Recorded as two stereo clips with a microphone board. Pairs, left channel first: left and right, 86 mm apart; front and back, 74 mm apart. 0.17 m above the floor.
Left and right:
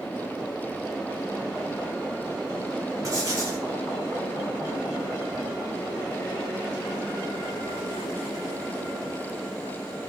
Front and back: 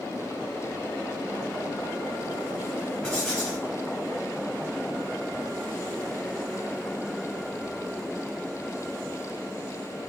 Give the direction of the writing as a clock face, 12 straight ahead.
2 o'clock.